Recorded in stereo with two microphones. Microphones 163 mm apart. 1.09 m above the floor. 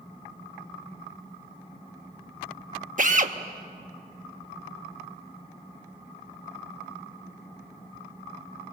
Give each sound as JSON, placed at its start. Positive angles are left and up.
{"t": 3.0, "sound": "a drill", "side_deg": -55, "distance_m": 1.0}